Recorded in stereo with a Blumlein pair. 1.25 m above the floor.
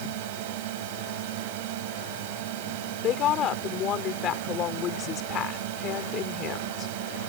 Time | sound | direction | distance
0.0 | a drone | 50° right | ?
3.0 | a woman speaking | 30° left | ?